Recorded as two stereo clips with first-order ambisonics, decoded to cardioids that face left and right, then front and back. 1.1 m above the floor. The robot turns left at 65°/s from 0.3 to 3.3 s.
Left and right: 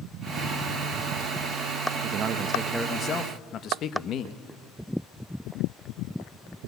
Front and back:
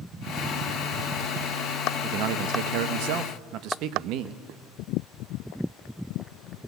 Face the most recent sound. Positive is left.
turn(degrees=145)